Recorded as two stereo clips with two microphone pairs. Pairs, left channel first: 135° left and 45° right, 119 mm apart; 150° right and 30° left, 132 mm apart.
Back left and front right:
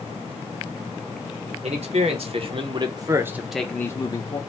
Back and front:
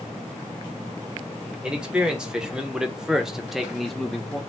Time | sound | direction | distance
1.6 | a man speaking | 50° right | 1.1 m